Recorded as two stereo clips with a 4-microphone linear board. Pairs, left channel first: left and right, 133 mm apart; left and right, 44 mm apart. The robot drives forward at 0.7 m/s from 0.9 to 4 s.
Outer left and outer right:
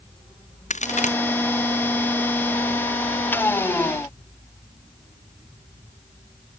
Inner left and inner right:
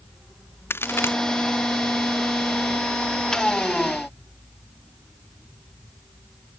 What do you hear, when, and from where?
0.7 s a crack: 65° left (ahead or behind)